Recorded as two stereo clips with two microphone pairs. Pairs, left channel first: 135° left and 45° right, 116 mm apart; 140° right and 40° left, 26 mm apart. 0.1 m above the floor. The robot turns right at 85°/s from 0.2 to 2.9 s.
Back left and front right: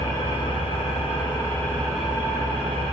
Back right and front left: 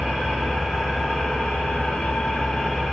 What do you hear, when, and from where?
0.0 s an engine running: 75° left, 0.8 m; by 2.9 s 55° right, 0.8 m